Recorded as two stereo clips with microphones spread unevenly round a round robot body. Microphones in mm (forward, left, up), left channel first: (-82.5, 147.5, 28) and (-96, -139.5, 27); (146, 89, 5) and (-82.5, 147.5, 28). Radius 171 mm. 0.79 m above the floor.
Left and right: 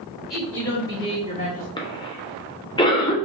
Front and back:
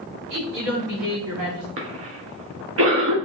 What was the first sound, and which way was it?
A woman speaking, straight behind.